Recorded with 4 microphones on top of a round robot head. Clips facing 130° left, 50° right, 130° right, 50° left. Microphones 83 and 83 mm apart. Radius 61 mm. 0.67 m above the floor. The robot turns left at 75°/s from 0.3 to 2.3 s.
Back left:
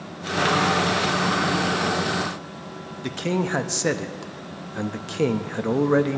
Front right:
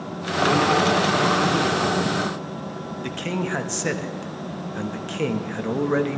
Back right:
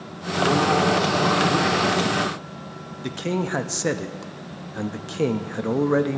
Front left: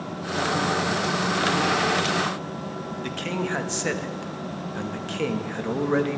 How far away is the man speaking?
About 1.0 m.